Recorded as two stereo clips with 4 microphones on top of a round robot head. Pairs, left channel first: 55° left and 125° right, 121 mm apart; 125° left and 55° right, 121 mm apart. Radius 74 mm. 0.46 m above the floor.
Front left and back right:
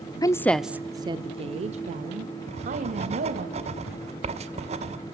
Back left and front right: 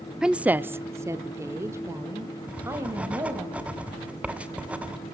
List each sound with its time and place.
0.2 s a woman speaking: 25° left, 0.8 m; by 3.5 s 125° right, 3 m
2.5 s writing: 130° right, 1.9 m